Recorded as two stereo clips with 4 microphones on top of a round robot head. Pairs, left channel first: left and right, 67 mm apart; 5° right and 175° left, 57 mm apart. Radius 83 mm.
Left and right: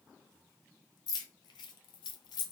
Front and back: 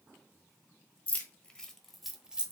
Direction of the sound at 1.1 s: 55° left.